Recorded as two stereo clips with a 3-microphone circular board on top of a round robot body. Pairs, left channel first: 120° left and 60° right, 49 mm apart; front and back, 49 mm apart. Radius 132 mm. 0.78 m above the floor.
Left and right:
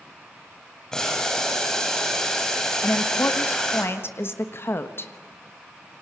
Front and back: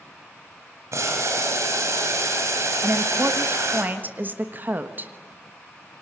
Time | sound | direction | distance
0.9 | boiling | 160° right | 5.5 m
2.8 | a woman speaking | 140° left | 1.5 m